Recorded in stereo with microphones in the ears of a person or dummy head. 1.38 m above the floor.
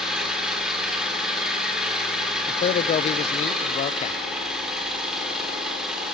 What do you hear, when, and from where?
0.0 s an engine running: centre (ahead or behind), 3 m
2.5 s a man speaking: 35° left (ahead or behind), 0.5 m